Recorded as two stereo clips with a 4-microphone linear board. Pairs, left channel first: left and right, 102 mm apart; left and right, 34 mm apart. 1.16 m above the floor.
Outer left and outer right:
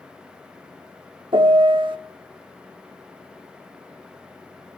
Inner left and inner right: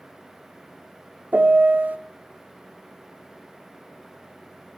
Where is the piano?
55° right (ahead or behind), 1.0 m.